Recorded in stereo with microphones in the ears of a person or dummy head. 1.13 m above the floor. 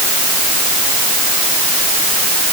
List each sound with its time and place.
Only background noise.